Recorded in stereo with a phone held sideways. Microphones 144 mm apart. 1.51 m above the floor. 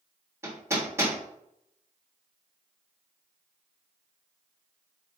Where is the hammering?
20° right (ahead or behind), 1.3 m.